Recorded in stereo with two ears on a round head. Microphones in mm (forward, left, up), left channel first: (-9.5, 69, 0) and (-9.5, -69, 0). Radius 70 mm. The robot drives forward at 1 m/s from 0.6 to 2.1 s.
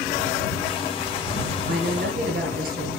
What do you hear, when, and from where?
1.7 s a woman speaking: 70° right (ahead or behind), 6.5 m; by 2.9 s 65° right (ahead or behind), 6.5 m